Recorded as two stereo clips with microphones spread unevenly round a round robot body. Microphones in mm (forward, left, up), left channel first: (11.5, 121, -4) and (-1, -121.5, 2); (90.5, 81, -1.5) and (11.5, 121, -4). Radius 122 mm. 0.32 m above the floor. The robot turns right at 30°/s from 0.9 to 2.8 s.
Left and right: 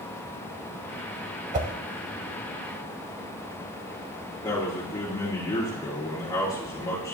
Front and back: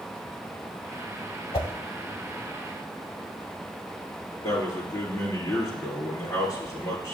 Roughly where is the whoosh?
Ahead right.